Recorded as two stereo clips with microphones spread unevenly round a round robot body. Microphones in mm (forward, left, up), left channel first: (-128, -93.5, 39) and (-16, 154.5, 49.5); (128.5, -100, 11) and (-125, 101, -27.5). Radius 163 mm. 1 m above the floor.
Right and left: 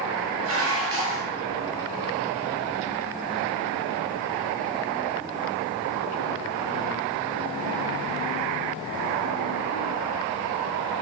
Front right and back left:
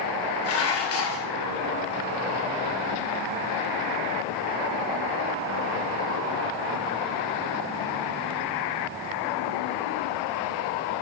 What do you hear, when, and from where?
0.4 s dishes clattering: 15° left, 1.6 m